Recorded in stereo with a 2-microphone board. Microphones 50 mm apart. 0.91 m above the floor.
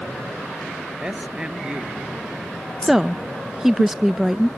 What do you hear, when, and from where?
1.0 s a man speaking: 20° right (ahead or behind)
2.8 s a woman speaking: 10° right (ahead or behind)